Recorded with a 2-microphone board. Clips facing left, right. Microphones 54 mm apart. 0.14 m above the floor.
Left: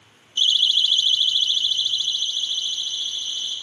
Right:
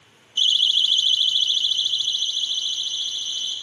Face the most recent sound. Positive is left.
turn(degrees=10)  # may be behind; listen again after turning